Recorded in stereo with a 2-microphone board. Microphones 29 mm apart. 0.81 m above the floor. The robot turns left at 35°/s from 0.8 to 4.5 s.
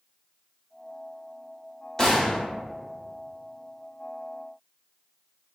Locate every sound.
2.0 s a gunshot: 20° left (ahead or behind), 0.9 m; by 2.4 s 35° left (ahead or behind), 0.9 m